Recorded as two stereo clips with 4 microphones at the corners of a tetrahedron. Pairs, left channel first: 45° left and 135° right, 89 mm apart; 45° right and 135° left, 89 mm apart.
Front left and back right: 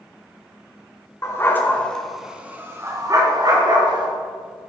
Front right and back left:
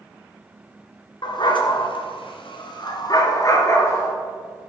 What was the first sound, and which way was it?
A dog barking, 10° right.